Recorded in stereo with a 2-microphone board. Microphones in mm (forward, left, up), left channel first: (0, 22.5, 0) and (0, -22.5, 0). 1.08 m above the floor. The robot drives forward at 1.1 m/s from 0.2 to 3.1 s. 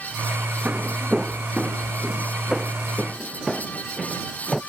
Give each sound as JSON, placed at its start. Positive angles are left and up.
{"t": 0.7, "sound": "footsteps", "side_deg": -35}